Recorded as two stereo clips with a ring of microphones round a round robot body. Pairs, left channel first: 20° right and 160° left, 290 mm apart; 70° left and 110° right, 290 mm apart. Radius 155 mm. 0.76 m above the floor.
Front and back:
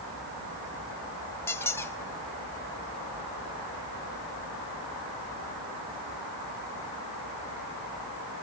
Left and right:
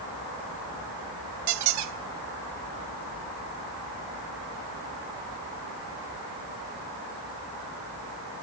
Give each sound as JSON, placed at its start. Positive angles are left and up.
{"t": 1.5, "sound": "a squeak", "azimuth_deg": -100, "distance_m": 0.5}